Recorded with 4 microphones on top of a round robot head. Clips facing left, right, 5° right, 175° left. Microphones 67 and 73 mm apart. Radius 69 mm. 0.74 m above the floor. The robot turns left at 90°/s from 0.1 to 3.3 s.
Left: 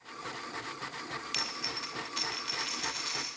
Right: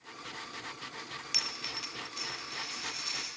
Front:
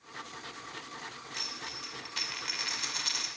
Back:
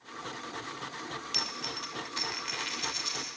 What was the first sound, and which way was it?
A dropped coin, 170° right.